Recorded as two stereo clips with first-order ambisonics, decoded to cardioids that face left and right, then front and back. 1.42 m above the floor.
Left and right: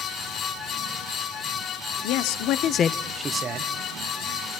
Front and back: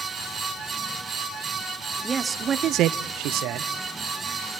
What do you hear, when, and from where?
2.0 s a man speaking: 100° left, 0.9 m; by 3.7 s 140° right, 0.8 m